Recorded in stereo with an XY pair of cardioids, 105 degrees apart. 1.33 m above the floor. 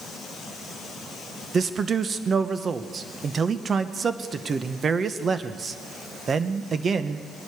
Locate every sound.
1.5 s a man speaking: 40° right, 1.1 m